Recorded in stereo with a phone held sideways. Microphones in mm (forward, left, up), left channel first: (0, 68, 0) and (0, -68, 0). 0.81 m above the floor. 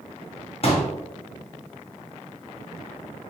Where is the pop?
45° left (ahead or behind), 0.7 m.